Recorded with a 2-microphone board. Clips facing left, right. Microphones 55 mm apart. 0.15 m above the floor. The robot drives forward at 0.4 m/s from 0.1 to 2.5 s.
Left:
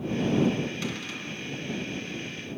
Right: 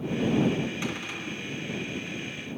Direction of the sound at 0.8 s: 20° right (ahead or behind).